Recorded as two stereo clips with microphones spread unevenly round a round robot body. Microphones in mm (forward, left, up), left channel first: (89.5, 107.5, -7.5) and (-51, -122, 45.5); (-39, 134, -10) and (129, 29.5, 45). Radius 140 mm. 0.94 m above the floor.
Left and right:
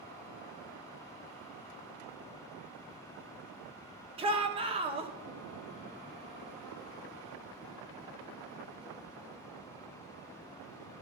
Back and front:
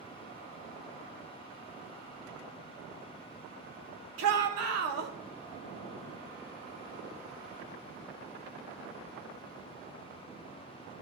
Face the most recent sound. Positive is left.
turn(degrees=-50)